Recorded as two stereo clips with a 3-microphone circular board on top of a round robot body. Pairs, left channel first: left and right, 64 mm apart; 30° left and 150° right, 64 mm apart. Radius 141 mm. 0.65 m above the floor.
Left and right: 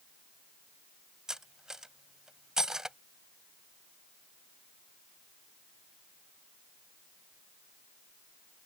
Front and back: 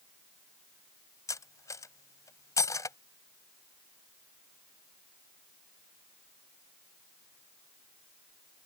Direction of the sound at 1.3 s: 5° right.